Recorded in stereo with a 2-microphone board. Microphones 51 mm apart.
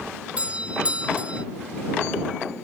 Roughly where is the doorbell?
Right.